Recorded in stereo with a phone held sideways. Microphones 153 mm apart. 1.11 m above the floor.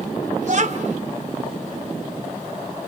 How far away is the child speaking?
About 2 m.